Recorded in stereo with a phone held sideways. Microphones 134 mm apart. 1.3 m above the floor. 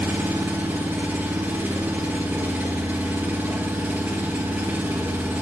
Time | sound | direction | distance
0.0 | an engine running | 15° right (ahead or behind) | 0.8 m